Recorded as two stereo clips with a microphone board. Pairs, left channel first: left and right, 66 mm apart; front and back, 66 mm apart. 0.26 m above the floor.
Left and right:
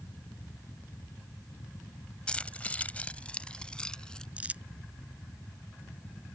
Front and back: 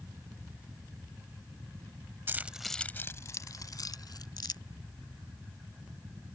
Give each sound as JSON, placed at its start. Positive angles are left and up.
{"t": 2.3, "sound": "keys jangling", "azimuth_deg": 155}
{"t": 4.4, "sound": "crumpling", "azimuth_deg": -20}